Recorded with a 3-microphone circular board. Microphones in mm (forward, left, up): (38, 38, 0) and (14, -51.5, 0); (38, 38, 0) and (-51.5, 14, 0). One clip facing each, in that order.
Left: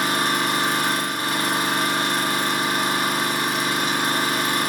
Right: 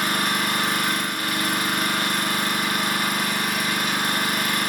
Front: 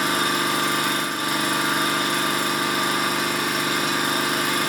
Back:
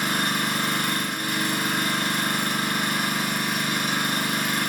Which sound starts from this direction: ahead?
An engine running, at 0.0 s.